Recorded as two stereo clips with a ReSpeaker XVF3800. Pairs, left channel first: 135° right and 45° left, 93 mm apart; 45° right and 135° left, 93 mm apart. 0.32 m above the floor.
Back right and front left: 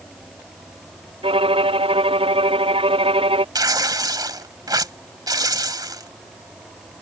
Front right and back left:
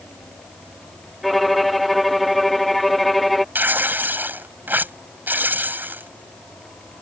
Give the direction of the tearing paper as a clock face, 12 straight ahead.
10 o'clock.